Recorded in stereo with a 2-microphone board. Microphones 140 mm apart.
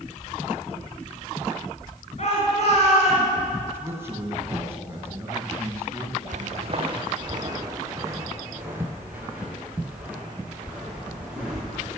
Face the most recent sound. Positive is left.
turn(degrees=-5)  # may be behind; listen again after turning